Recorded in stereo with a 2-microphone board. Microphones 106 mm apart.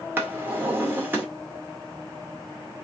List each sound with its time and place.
0.2 s a drawer: 20° right (ahead or behind), 1.7 m